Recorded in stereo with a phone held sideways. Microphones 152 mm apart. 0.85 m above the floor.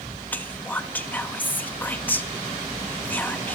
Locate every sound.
0.3 s whispering: 10° left (ahead or behind), 1.2 m